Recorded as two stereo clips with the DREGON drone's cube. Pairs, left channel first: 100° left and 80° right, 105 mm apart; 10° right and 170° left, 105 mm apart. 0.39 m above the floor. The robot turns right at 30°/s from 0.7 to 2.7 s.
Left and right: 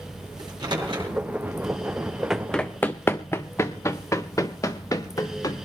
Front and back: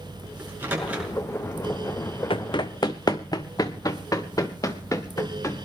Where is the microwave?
120° right, 5 m; by 1.1 s 110° right, 5 m.